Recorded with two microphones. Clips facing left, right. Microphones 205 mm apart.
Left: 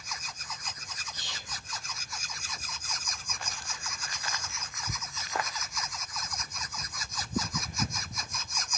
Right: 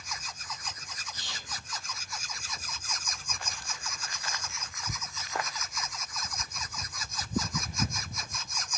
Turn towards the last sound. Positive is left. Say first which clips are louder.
# right 1 dB
turn(degrees=-50)  # may be behind; listen again after turning